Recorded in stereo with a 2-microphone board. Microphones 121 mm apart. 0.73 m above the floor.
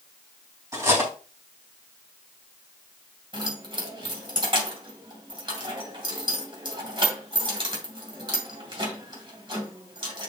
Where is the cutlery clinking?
20° right (ahead or behind), 3.5 m.